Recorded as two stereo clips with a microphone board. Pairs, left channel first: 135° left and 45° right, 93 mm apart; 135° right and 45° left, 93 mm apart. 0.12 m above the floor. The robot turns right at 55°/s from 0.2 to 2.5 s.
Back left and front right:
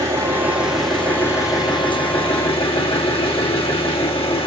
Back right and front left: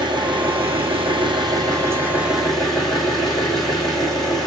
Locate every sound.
0.0 s an engine running: 10° left, 2 m; by 4.5 s 140° left, 2 m